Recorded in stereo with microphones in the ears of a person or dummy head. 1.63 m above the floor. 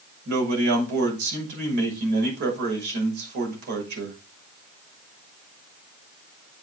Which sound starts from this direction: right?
A man speaking, at 0.2 s.